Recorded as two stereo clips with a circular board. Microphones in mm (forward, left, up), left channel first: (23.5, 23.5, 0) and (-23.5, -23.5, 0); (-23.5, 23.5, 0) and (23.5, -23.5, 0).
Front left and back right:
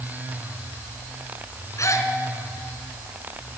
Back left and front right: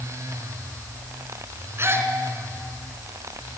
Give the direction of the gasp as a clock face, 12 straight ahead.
12 o'clock.